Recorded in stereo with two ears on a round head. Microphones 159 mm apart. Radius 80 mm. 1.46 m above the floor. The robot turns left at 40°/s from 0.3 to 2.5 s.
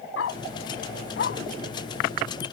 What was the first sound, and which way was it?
A dog barking, 75° left (ahead or behind).